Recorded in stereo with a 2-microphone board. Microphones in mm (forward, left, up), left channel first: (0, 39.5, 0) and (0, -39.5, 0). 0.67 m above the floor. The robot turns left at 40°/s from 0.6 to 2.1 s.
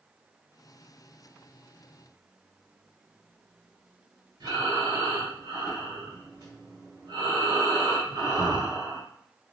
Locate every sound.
4.4 s breathing: 60° right (ahead or behind), 1.9 m